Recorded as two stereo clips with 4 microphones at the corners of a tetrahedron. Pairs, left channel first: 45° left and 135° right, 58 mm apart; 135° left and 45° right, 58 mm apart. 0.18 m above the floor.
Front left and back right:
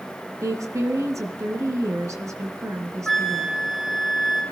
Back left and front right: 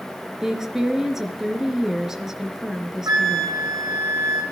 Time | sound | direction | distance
0.4 | a woman speaking | 130° right | 2.5 m
3.1 | a flute | 40° right | 4 m